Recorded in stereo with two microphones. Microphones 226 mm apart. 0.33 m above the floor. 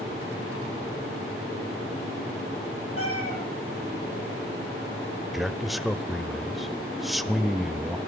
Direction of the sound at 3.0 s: 75° left (ahead or behind).